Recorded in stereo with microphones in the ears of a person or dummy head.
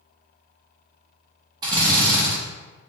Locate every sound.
1.6 s a drill: 25° right (ahead or behind), 0.9 m